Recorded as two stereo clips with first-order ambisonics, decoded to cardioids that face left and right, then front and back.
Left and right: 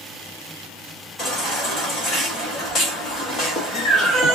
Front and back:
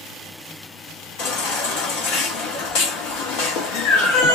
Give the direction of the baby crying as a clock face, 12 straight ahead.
11 o'clock.